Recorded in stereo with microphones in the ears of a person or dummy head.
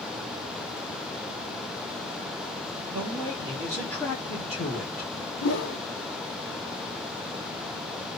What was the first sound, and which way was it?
A man speaking, 25° right (ahead or behind).